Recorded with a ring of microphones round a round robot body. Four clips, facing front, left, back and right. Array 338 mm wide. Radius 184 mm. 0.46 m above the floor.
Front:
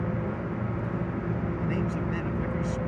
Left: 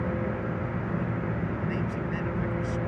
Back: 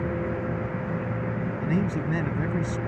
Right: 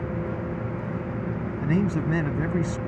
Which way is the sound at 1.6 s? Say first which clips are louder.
Right 6 dB, back 5 dB; 110° right.